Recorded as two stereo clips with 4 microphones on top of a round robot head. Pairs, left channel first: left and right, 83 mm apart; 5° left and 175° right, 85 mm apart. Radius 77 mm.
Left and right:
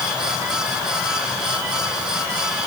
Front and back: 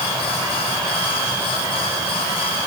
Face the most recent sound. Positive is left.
No sound to turn to.